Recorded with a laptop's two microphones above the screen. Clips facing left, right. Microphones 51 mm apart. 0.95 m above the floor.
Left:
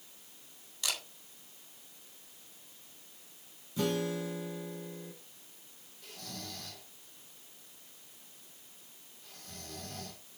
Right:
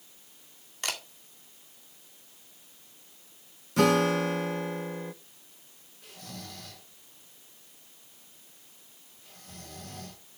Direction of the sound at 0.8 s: 45° right (ahead or behind).